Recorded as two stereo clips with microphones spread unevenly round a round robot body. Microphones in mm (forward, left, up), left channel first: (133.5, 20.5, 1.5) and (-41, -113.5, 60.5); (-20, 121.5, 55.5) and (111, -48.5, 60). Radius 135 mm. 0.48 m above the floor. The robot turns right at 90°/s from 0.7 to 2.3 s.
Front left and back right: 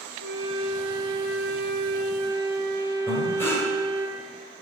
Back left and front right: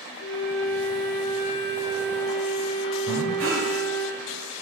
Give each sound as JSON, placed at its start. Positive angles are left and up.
{"t": 0.2, "sound": "a flute", "azimuth_deg": 175, "distance_m": 4.0}
{"t": 3.1, "sound": "breathing", "azimuth_deg": -35, "distance_m": 2.0}